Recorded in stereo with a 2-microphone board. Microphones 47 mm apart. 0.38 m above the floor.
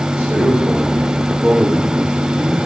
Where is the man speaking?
45° right (ahead or behind), 8 m.